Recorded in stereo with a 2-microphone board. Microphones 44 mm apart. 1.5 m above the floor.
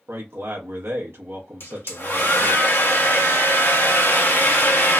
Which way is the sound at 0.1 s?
65° right (ahead or behind).